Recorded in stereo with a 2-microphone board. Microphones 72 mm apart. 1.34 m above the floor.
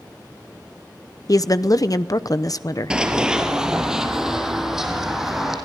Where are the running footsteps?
10° right (ahead or behind), 1.9 m; by 5.5 s 5° right (ahead or behind), 4.5 m.